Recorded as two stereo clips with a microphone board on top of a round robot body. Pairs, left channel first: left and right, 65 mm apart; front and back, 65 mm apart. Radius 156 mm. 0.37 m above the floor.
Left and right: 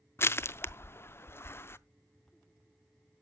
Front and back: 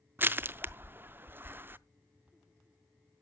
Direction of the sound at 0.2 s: 130° left.